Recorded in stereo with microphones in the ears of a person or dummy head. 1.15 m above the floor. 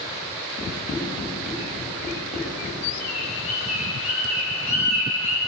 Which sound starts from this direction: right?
A bird, at 3.0 s.